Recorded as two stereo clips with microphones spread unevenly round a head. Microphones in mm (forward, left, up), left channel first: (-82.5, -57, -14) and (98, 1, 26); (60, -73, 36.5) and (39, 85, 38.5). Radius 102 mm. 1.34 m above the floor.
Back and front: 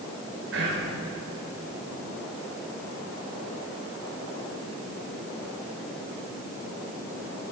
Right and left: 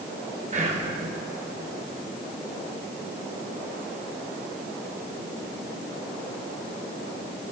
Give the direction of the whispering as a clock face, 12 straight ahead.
10 o'clock.